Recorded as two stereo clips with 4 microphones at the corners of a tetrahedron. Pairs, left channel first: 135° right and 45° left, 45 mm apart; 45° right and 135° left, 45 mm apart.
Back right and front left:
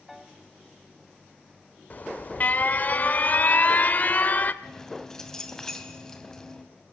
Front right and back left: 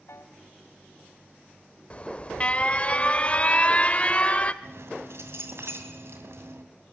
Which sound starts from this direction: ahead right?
A piano, at 0.1 s.